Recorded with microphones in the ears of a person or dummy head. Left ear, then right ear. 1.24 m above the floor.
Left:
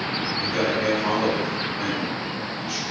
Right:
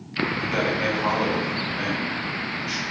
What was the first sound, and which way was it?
A man speaking, 60° right (ahead or behind).